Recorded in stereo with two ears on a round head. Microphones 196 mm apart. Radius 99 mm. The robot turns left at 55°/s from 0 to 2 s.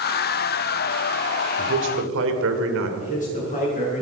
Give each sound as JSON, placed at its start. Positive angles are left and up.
{"t": 1.6, "sound": "a man speaking", "side_deg": -50, "distance_m": 2.5}
{"t": 3.0, "sound": "a man speaking", "side_deg": 35, "distance_m": 8.5}